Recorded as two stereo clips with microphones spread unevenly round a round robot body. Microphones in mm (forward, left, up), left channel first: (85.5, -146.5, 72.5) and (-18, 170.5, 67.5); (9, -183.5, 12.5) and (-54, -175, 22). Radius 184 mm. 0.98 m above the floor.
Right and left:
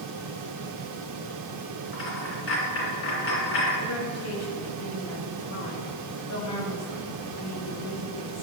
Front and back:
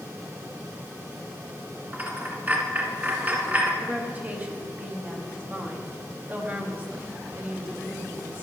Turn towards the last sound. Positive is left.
turn(degrees=-120)